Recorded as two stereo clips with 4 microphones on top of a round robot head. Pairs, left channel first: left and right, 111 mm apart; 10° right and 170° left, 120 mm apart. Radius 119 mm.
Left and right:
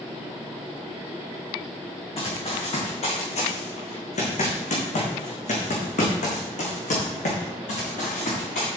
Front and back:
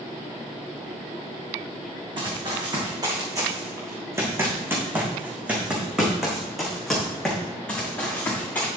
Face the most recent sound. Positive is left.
turn(degrees=65)